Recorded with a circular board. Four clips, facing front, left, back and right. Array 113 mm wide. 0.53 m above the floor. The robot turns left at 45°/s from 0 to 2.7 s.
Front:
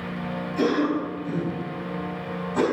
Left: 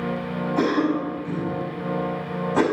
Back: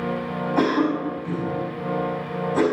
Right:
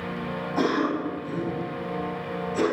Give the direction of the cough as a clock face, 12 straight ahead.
6 o'clock.